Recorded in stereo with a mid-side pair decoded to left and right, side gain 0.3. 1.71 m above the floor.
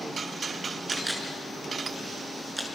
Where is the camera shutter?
20° right, 7 m.